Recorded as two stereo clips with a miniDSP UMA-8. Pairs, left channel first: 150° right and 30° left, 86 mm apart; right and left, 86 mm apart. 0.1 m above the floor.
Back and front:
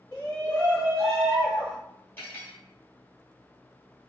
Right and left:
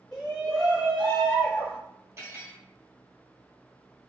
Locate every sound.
0.1 s a shout: 170° right, 1.3 m; by 1.8 s 40° right, 1.4 m
2.2 s cutlery clinking: 145° left, 1.7 m